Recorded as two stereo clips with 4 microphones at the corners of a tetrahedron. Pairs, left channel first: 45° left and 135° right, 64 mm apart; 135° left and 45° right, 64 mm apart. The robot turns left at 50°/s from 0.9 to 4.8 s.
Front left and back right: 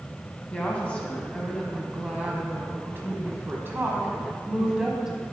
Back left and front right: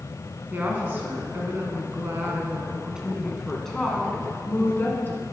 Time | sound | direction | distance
0.5 | a woman speaking | 10° right | 1.4 m